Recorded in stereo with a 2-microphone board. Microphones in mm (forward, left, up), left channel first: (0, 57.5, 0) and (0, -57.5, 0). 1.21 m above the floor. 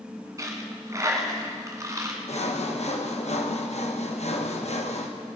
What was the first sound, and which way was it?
A dropped coin, 30° right (ahead or behind).